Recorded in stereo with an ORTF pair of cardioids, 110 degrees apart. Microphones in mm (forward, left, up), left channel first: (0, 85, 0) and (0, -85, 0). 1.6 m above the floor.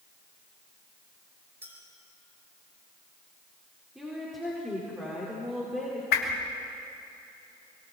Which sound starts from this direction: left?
A whoosh, at 6.1 s.